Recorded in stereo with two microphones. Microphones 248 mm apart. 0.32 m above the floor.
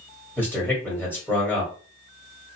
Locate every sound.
0.4 s a man speaking: 10° left (ahead or behind), 1.5 m